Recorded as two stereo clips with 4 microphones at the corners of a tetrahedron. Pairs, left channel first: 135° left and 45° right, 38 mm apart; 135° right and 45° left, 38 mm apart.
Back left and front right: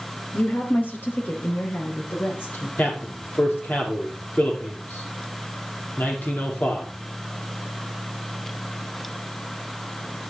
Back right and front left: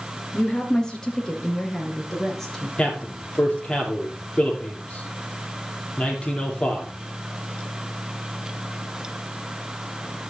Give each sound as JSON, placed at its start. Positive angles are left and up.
{"t": 0.3, "sound": "a woman speaking", "azimuth_deg": 165, "distance_m": 2.5}
{"t": 2.8, "sound": "a man speaking", "azimuth_deg": 165, "distance_m": 5.0}